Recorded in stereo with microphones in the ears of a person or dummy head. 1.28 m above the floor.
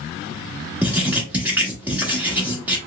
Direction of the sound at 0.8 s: 15° right (ahead or behind).